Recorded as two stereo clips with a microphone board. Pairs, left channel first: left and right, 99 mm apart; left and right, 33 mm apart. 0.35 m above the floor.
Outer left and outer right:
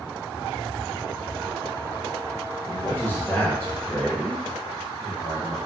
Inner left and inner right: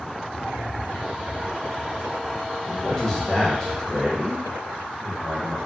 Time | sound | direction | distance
2.7 | a man speaking | 20° left (ahead or behind) | 1.0 m